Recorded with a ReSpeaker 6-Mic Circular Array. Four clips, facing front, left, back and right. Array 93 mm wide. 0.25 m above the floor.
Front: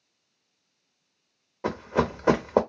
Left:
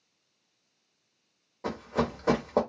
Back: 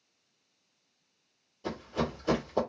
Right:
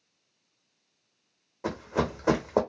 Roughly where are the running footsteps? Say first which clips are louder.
Right 1 dB, front 7 dB; ahead.